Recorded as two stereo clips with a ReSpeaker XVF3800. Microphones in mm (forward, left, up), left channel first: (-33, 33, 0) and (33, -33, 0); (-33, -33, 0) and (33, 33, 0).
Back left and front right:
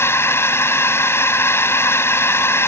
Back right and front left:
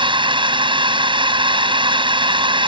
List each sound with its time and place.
0.0 s a drone: 70° left